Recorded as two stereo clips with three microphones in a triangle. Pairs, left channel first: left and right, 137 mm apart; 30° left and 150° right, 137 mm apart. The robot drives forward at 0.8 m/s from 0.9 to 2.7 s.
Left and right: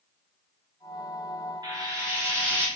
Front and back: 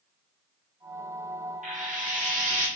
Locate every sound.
1.6 s frying: 150° right, 1.0 m; by 2.7 s 165° right, 1.7 m